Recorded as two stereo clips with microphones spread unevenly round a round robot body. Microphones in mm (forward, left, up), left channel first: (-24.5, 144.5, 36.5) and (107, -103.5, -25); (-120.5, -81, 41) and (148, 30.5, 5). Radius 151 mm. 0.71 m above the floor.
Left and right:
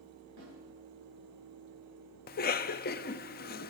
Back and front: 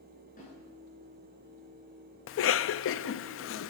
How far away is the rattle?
No rattle in this recording.